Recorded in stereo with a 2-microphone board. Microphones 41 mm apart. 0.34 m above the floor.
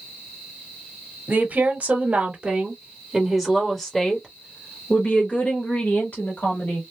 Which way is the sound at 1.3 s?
45° right (ahead or behind).